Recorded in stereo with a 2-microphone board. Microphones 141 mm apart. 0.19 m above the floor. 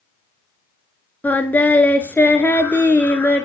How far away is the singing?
About 0.7 m.